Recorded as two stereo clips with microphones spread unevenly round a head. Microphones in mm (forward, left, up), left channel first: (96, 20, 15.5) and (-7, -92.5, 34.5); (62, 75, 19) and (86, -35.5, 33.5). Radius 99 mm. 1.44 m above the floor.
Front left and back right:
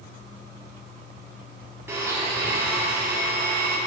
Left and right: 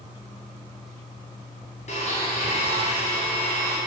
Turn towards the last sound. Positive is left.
turn(degrees=150)